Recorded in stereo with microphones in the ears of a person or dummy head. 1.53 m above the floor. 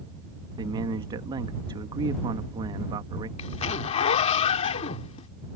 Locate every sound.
0.6 s a man speaking: 25° right (ahead or behind)
3.4 s a zipper: 35° left (ahead or behind)